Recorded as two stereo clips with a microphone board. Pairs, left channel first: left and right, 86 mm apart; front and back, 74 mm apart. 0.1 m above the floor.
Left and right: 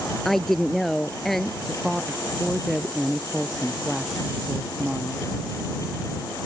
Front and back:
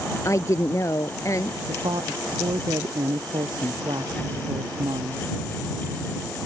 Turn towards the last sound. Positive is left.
turn(degrees=180)